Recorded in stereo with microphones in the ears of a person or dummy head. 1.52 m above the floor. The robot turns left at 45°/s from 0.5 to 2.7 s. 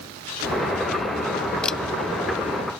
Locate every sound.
1.6 s a camera shutter: 10° left (ahead or behind); by 1.8 s 5° left (ahead or behind)